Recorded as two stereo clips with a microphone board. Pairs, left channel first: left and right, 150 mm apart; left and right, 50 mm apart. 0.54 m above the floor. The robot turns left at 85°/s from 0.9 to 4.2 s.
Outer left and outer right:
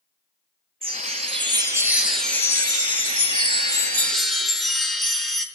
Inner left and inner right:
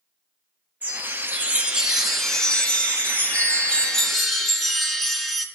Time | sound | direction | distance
0.8 | a chime | 75° right | 1.3 m